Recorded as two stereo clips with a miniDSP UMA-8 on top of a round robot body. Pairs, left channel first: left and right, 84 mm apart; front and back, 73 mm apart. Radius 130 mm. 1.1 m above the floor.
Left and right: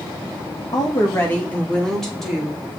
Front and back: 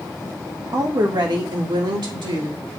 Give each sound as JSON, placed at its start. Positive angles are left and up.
{"t": 0.7, "sound": "a woman speaking", "azimuth_deg": 135, "distance_m": 1.4}